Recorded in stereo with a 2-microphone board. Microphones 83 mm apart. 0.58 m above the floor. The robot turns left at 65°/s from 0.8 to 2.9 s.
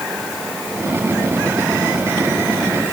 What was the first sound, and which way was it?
Only background noise.